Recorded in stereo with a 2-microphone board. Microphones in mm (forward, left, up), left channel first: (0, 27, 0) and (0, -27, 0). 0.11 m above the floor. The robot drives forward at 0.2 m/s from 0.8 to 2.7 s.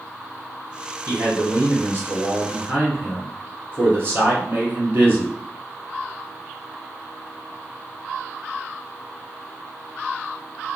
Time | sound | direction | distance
1.1 | a man speaking | 40° right (ahead or behind) | 1.5 m